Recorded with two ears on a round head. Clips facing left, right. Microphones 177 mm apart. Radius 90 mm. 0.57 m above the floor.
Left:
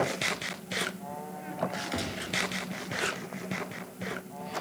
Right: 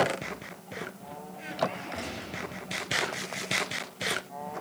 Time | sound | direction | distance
1.9 | a gunshot | 40° left (ahead or behind) | 4.5 m